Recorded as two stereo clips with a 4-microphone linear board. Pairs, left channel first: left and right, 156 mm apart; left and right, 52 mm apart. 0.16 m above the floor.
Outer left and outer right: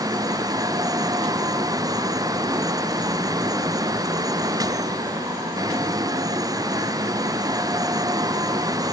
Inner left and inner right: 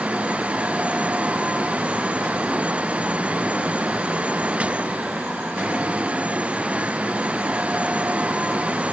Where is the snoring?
I don't hear snoring.